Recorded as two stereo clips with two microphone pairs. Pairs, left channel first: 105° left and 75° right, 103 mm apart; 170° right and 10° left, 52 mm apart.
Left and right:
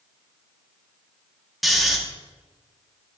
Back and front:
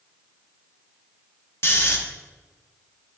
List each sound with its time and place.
1.6 s snoring: 165° right, 1.3 m